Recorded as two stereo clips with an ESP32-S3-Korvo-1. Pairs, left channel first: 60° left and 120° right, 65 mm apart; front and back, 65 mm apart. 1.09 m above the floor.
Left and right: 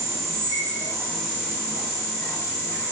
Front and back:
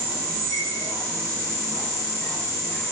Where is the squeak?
160° right, 1.5 m.